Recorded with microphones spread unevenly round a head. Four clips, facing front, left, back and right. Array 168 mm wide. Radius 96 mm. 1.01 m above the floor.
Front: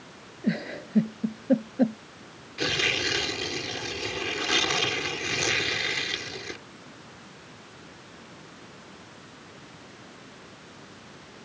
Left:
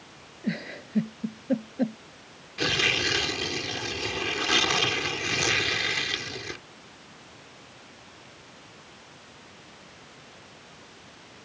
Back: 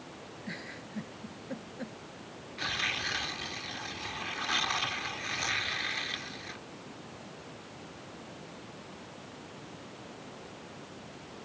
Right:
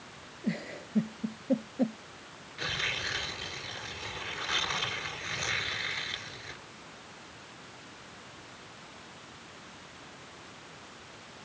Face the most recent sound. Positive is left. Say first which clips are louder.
# left 9 dB, front 8 dB
turn(degrees=65)